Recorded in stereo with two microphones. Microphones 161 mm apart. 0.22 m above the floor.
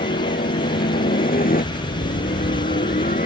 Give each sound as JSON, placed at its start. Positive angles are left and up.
{"t": 0.0, "sound": "a helicopter", "side_deg": 65}